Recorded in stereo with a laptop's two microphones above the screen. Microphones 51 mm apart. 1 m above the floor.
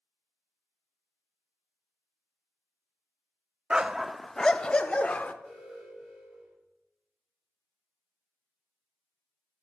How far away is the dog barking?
About 0.5 m.